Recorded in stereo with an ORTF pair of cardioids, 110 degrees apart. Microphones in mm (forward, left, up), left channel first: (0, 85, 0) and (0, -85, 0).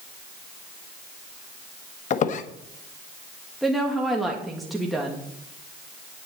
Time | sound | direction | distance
2.1 | a squeak | 50° left | 1.1 m
3.6 | a woman speaking | straight ahead | 2.0 m